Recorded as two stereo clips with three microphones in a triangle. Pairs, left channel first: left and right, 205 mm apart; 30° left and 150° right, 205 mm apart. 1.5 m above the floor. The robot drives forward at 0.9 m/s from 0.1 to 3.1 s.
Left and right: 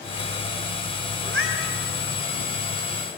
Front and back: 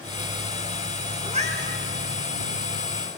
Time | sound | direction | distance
1.2 | a cat meowing | 90° right | 3.5 m